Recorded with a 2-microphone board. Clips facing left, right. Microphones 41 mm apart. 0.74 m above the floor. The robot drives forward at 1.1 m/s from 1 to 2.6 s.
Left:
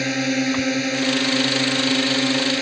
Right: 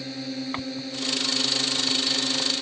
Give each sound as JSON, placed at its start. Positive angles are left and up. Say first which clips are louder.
{"t": 0.0, "sound": "a drone", "louder": "left 11 dB", "side_deg": 75}